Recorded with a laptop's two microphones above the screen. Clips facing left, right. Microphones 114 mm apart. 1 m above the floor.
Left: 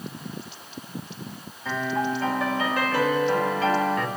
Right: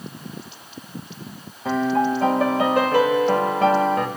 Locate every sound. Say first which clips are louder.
1.6 s a piano: right 6 dB; 55° right (ahead or behind), 2.0 m